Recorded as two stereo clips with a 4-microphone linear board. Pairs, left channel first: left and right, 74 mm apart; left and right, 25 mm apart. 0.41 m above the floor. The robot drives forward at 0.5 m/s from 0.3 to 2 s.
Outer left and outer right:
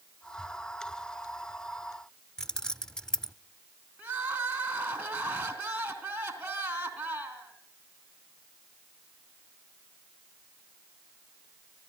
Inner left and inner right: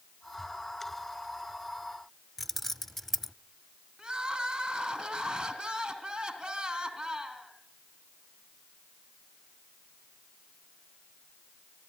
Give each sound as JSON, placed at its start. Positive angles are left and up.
{"t": 2.4, "sound": "keys jangling", "side_deg": 10, "distance_m": 0.7}
{"t": 4.0, "sound": "crying", "side_deg": -25, "distance_m": 3.0}